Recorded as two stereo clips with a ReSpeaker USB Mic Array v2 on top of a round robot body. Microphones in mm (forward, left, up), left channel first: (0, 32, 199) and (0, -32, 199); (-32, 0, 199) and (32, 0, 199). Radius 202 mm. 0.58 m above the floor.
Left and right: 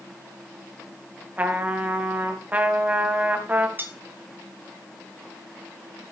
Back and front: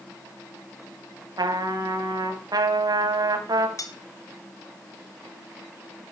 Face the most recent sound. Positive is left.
turn(degrees=-150)